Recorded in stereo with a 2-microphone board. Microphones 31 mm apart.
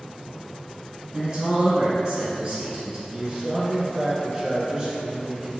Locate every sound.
1.1 s a man speaking: 35° right (ahead or behind), 1.2 m
3.1 s a man speaking: 25° right (ahead or behind), 1.2 m